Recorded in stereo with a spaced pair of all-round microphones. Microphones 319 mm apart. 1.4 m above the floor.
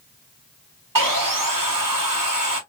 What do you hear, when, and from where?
0.9 s sawing: 85° right, 1.0 m